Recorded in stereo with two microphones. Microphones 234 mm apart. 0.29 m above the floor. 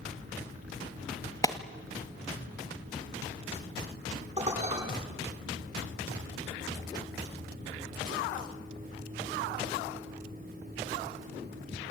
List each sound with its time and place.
1.4 s a clap: 15° left (ahead or behind), 1.3 m
4.4 s dishes clattering: 30° right (ahead or behind), 10 m